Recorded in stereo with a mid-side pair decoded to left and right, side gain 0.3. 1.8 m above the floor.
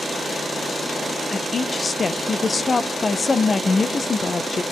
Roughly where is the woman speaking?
Ahead left.